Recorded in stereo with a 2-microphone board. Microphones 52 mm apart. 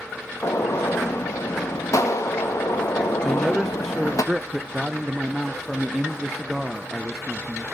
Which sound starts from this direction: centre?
A man speaking, at 3.2 s.